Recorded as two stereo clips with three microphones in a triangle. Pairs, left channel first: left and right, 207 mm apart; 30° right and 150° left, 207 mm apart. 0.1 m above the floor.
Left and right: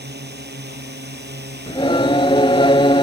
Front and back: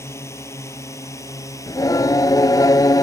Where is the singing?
35° left.